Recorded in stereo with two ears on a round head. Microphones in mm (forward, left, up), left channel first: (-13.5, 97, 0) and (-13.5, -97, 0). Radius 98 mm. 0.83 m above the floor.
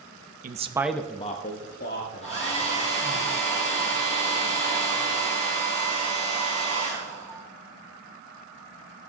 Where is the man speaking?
40° right (ahead or behind), 0.9 m; by 3.2 s 60° left (ahead or behind), 3.5 m.